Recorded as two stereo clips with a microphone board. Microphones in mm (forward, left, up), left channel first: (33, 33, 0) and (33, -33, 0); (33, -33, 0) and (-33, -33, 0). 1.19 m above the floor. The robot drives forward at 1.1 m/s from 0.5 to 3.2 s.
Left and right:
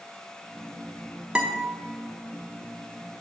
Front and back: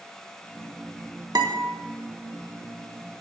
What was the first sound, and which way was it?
A guitar, 165° right.